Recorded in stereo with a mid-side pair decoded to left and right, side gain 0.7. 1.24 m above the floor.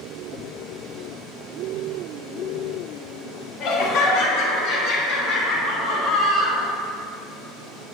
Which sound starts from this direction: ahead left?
Laughter, at 3.6 s.